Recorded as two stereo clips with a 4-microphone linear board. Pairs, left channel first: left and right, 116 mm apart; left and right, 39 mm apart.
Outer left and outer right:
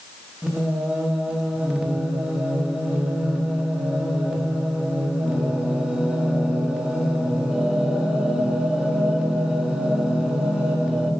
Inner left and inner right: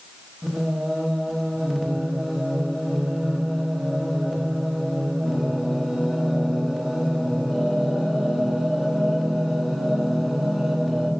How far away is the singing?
About 1.1 m.